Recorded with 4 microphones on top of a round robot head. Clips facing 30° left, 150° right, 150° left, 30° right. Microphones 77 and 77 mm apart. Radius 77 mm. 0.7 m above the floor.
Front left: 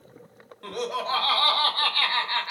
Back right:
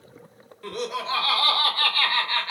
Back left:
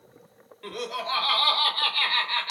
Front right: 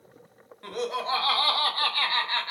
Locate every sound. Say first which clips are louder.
0.6 s laughter: even, front right 2 dB; 20° left, 1.6 m; by 2.5 s 30° right, 1.1 m